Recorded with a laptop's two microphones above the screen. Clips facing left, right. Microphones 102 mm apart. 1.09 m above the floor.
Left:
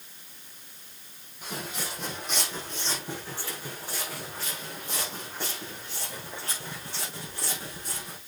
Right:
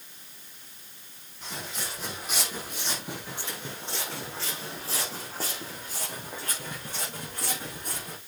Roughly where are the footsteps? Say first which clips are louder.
Left 2 dB; centre.